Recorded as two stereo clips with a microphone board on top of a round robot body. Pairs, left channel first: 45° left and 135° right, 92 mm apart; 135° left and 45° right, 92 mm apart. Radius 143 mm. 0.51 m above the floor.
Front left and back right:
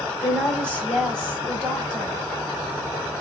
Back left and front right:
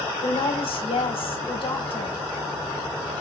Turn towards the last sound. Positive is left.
turn(degrees=130)